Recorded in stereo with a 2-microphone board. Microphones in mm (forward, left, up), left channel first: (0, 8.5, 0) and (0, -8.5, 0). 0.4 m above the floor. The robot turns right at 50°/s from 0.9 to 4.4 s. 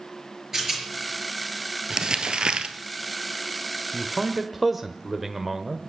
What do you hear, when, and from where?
0.5 s a rattle: 25° right (ahead or behind), 5 m
1.9 s crumpling: 140° right, 1.2 m; by 2.8 s 95° right, 1.2 m
3.9 s a man speaking: 20° right (ahead or behind), 1.1 m; by 5.8 s 5° right (ahead or behind), 1.1 m